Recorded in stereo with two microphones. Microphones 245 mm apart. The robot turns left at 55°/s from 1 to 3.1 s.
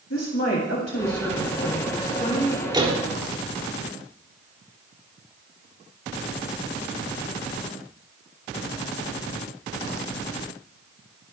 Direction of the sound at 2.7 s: 20° right (ahead or behind).